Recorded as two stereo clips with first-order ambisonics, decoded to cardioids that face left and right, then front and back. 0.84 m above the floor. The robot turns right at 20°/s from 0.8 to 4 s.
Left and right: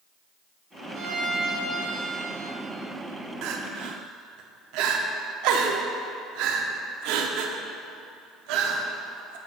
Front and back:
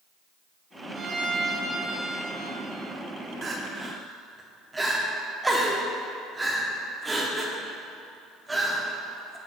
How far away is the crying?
About 0.5 m.